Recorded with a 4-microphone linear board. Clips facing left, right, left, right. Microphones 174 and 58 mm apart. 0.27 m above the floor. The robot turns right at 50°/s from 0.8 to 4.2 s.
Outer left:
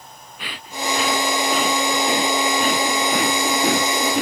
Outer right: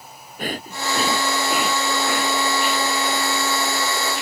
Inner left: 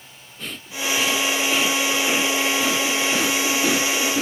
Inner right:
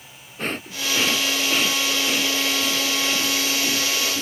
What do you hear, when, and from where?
0.4 s breathing: 45° right; by 4.2 s 125° left